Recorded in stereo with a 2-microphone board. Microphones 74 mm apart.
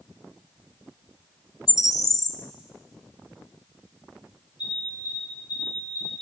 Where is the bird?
45° left (ahead or behind), 1.3 m.